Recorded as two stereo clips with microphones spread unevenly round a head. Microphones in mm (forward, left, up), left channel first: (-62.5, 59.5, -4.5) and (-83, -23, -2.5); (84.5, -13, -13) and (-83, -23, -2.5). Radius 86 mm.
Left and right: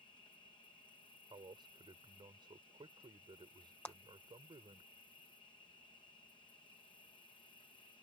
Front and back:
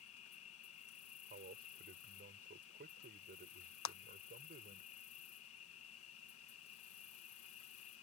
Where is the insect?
10° left.